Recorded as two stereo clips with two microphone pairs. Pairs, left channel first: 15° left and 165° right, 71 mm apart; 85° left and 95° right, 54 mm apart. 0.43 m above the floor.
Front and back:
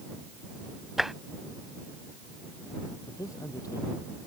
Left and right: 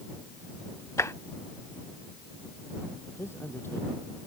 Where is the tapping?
105° left.